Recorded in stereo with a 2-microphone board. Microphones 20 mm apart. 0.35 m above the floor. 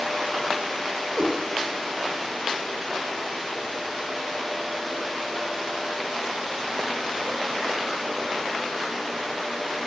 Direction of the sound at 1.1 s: 85° right.